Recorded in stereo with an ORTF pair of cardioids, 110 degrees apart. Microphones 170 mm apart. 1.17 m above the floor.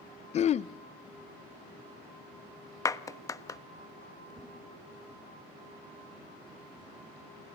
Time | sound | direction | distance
0.3 | throat clearing | 40° left | 0.5 m
2.9 | a clap | 20° left | 1.0 m
4.3 | a whoosh | 30° right | 4 m